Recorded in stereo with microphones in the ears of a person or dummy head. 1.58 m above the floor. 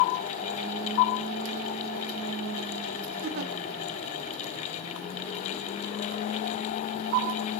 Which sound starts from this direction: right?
A giggle, at 3.2 s.